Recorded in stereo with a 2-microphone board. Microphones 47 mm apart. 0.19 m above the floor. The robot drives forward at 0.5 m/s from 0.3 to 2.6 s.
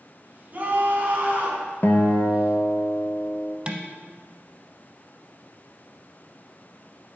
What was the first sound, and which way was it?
A scream, 35° right (ahead or behind).